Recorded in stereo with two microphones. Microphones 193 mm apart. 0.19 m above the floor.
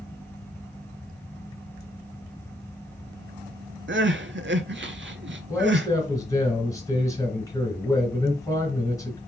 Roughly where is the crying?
Right.